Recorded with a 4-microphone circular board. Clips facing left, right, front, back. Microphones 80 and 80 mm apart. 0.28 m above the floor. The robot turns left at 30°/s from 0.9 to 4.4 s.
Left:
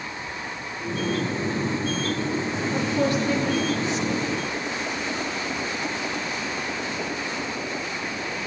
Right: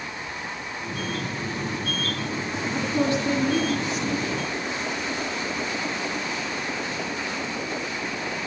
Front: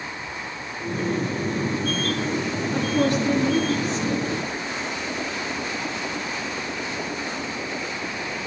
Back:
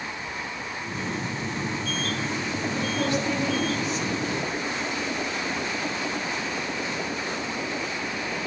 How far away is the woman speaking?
About 5 m.